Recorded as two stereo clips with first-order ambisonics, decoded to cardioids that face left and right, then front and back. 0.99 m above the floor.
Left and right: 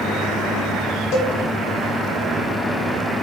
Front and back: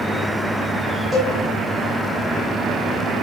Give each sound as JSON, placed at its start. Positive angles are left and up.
{"t": 1.1, "sound": "a cowbell", "azimuth_deg": 85, "distance_m": 0.7}